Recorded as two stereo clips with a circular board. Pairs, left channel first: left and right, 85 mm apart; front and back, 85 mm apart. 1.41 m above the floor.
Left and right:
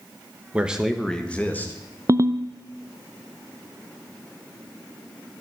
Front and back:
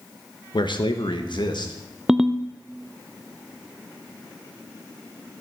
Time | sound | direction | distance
0.5 | a man speaking | 15° right | 1.1 m
2.1 | a ringtone | 100° right | 0.6 m